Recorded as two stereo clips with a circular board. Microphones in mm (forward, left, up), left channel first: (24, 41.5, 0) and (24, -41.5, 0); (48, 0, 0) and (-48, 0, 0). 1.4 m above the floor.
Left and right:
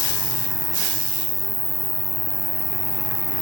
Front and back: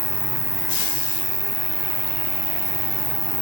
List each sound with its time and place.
0.0 s an insect: 160° left